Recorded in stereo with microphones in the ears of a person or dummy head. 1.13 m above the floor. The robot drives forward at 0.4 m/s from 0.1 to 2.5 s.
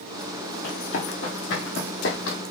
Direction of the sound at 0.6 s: 65° left (ahead or behind).